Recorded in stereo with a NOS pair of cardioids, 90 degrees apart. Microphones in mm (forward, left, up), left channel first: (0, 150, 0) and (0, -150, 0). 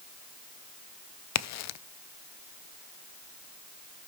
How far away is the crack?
About 0.5 m.